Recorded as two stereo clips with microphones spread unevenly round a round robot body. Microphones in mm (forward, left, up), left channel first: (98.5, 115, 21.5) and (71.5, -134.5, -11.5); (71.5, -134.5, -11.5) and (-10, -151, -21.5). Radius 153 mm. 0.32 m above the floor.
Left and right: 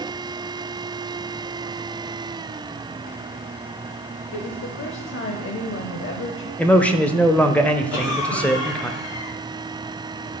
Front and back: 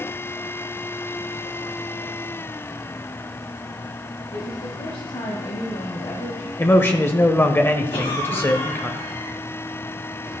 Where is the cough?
65° left, 3.5 m.